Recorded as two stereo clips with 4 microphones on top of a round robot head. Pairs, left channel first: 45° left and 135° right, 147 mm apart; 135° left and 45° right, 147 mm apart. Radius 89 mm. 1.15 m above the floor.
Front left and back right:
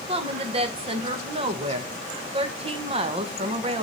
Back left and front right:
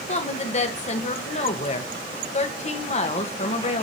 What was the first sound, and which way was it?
A woman speaking, 175° left.